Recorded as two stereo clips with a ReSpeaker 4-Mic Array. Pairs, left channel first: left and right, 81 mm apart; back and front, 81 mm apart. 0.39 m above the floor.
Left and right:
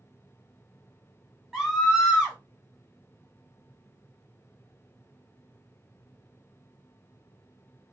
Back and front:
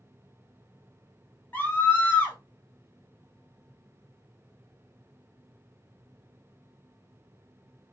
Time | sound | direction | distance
1.5 | a scream | 170° right | 1.4 m